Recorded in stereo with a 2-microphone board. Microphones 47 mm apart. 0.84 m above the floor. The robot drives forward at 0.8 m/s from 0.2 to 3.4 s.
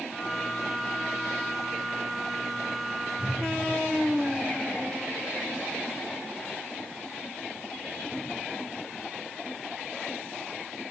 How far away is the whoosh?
About 2.5 m.